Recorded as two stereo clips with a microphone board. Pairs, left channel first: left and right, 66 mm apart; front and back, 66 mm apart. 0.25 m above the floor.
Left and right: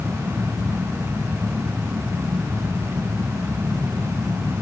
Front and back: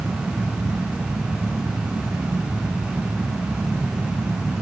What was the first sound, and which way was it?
Only background noise.